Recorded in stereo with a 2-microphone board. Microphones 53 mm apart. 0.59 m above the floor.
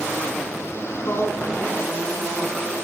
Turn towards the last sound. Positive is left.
turn(degrees=65)  # may be behind; listen again after turning